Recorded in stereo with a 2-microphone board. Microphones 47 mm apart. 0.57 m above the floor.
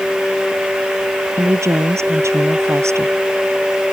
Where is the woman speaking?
85° right.